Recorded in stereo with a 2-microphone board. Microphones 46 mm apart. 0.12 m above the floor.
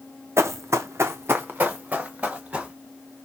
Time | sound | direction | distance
0.4 | running footsteps | 70° right (ahead or behind) | 0.5 m